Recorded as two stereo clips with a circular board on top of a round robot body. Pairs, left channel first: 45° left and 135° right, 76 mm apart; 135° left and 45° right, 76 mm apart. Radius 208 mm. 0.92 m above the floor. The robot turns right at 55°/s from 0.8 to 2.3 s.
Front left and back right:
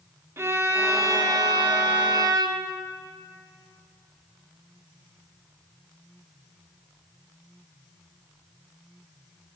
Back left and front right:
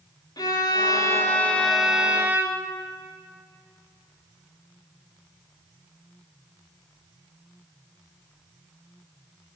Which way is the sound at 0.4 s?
170° left.